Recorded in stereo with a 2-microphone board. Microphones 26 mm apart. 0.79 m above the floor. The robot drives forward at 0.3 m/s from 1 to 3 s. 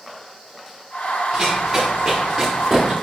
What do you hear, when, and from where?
1.3 s running footsteps: 10° right (ahead or behind), 5 m; by 2.9 s centre (ahead or behind), 7 m